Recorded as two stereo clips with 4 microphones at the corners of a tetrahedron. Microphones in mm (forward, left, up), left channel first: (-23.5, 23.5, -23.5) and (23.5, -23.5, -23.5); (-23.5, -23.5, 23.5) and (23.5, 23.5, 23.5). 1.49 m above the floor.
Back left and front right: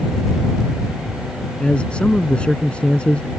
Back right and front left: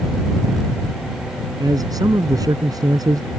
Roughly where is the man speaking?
Ahead left.